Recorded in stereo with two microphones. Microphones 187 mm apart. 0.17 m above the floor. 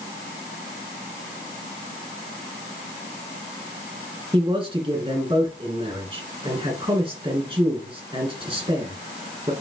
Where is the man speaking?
25° right (ahead or behind), 1.8 m.